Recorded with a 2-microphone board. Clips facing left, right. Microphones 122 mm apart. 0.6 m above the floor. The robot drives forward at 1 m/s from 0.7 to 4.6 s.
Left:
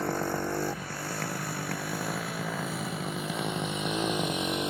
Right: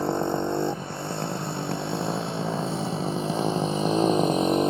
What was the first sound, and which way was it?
A motorcycle, 20° right (ahead or behind).